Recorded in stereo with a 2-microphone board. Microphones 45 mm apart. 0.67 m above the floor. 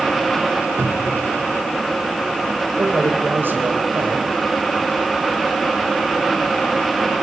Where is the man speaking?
45° right (ahead or behind), 3.5 m.